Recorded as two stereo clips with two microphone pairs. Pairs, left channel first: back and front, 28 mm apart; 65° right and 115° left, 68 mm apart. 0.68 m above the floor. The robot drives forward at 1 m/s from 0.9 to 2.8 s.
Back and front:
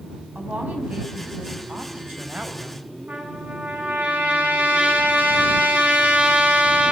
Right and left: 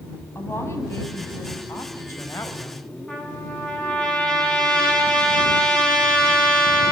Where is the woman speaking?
20° right, 5 m; by 2.9 s 30° right, 3.5 m.